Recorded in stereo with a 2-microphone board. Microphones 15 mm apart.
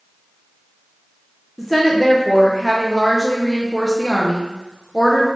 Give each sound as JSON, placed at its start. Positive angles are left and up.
{"t": 1.6, "sound": "a woman speaking", "side_deg": -10, "distance_m": 0.5}